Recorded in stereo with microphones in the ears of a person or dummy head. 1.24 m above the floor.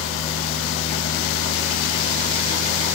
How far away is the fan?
About 1.4 m.